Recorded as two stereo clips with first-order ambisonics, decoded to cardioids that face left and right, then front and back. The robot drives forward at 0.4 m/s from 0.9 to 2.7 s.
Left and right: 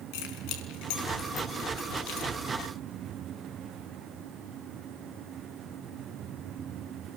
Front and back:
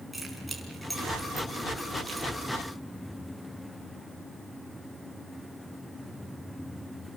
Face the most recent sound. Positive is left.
turn(degrees=100)